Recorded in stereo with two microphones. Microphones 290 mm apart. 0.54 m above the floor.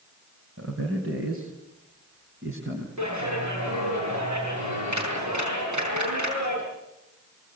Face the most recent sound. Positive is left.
turn(degrees=-75)  # may be behind; listen again after turning